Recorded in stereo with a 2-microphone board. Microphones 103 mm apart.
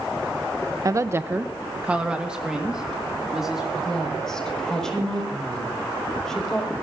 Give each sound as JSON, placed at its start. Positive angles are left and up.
{"t": 0.8, "sound": "a woman speaking", "side_deg": -35, "distance_m": 0.5}
{"t": 3.8, "sound": "a woman speaking", "side_deg": 5, "distance_m": 5.0}